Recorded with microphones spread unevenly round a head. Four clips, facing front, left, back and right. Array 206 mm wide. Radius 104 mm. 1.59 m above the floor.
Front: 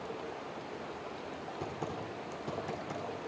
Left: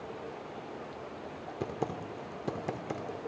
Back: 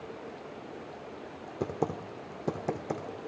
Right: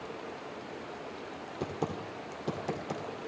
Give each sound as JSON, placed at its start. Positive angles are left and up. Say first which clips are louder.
{"t": 1.6, "sound": "typing on a keyboard", "louder": "even, back 9 dB", "azimuth_deg": 170, "distance_m": 2.0}